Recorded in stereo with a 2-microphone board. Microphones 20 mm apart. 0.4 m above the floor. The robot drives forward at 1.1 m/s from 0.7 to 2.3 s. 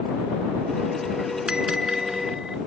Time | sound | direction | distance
1.5 | a bell | 35° right (ahead or behind) | ?